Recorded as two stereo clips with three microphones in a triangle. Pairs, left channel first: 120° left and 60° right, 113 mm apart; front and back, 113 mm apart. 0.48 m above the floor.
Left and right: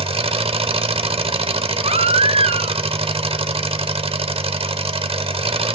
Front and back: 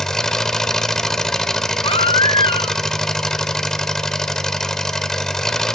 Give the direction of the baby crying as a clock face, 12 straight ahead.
1 o'clock.